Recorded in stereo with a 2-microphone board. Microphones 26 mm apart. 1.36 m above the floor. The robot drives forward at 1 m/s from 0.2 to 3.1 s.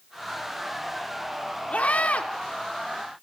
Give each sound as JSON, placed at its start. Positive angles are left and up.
{"t": 1.7, "sound": "a scream", "side_deg": 70, "distance_m": 3.5}